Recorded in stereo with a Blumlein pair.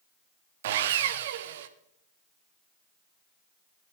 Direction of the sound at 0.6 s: 55° right.